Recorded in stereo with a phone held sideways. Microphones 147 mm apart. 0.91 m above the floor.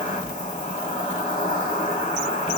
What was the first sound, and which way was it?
An insect, 55° left (ahead or behind).